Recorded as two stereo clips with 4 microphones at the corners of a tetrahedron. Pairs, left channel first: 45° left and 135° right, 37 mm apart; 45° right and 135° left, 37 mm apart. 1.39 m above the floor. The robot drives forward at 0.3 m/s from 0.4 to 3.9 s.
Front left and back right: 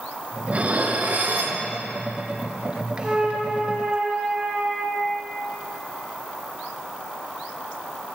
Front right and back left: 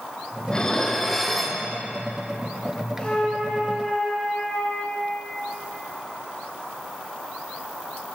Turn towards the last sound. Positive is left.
turn(degrees=-110)